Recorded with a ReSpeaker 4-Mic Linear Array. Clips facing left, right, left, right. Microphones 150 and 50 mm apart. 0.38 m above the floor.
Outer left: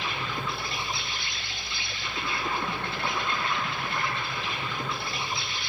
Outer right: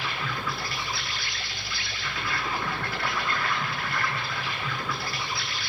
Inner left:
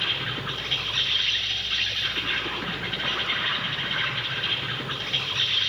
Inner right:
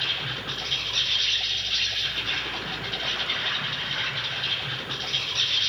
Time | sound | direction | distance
0.0 | an insect | 25° left (ahead or behind) | 7 m